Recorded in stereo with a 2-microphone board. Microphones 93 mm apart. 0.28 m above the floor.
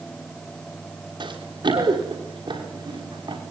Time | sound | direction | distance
1.2 | running footsteps | 60° right (ahead or behind) | 6 m